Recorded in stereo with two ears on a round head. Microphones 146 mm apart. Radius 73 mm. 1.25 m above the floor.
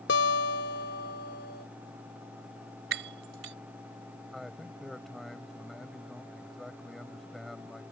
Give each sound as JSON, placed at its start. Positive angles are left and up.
{"t": 0.1, "sound": "a guitar", "side_deg": 80}
{"t": 2.9, "sound": "breaking glass", "side_deg": -85}
{"t": 4.3, "sound": "a man speaking", "side_deg": 0}